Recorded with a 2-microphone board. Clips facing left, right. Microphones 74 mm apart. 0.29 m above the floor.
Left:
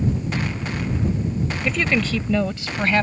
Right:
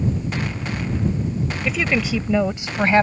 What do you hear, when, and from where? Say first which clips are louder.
1.6 s a woman speaking: even; centre (ahead or behind); by 3.0 s 25° right (ahead or behind)